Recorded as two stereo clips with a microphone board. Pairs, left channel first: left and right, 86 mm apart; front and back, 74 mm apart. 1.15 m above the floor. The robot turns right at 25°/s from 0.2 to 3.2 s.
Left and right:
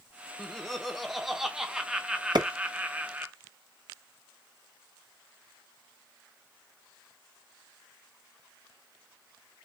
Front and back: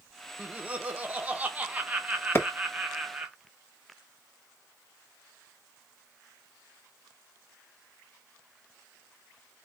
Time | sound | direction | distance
0.4 | laughter | 160° left | 0.6 m
2.4 | a clap | 60° right | 1.0 m